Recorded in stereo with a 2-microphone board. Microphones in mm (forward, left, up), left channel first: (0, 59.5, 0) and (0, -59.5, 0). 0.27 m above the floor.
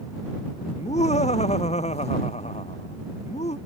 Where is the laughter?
70° left (ahead or behind).